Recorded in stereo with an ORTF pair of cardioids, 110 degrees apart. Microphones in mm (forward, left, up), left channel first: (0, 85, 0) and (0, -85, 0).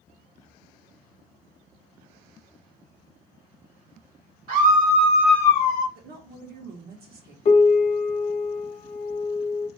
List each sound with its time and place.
4.5 s a scream: 60° right, 1.5 m; by 5.8 s 55° left, 1.0 m
6.0 s a woman speaking: 65° right, 1.2 m
7.5 s a piano: 35° left, 0.6 m